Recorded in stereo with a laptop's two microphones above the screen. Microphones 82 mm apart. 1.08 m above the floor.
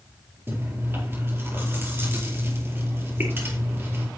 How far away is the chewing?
About 4.5 m.